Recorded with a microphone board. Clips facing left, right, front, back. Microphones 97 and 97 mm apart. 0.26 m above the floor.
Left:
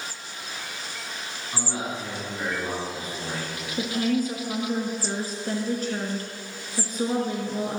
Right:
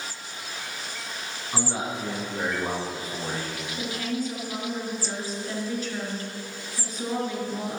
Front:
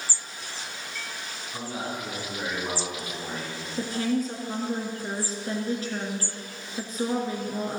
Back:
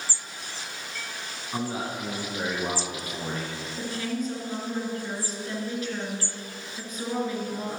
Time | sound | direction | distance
1.5 | a man speaking | 155° right | 2.5 m
3.8 | a woman speaking | 50° left | 3 m